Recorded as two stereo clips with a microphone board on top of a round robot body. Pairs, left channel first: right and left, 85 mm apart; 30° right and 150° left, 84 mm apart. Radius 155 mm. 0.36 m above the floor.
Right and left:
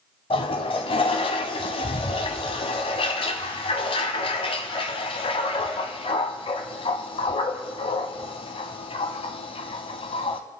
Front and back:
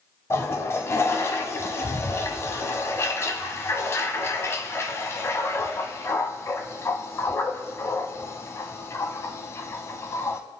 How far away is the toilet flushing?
About 0.6 m.